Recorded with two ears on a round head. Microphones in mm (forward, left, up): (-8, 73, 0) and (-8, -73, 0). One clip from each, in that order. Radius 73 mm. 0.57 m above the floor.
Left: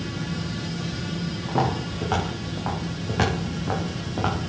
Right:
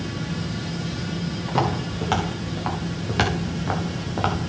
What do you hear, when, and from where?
1.5 s footsteps: 70° right (ahead or behind), 5.5 m; by 4.4 s 80° right, 3.5 m